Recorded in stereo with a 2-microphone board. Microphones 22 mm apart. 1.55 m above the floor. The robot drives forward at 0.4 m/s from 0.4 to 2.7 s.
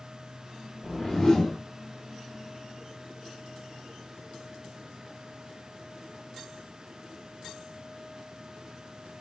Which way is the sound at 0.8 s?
25° left (ahead or behind).